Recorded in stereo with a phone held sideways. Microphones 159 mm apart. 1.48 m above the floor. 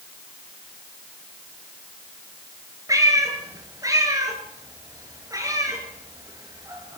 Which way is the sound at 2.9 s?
20° right (ahead or behind).